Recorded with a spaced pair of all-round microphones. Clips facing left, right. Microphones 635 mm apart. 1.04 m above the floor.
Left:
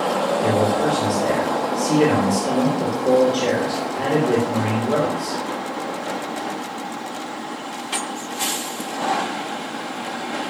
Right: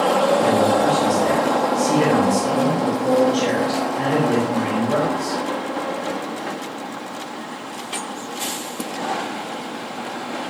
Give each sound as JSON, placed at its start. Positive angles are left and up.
{"t": 0.4, "sound": "a man speaking", "side_deg": -25, "distance_m": 4.5}